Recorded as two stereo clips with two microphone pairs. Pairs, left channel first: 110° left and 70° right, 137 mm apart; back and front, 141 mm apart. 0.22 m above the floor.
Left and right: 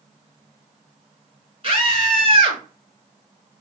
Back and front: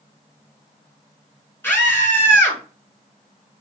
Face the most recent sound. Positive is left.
turn(degrees=-110)